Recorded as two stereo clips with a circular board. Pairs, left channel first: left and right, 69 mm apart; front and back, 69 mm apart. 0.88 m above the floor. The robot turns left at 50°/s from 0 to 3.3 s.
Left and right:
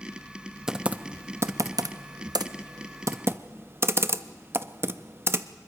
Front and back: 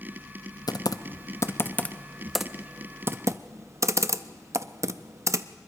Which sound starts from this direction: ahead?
Typing on a keyboard, at 0.7 s.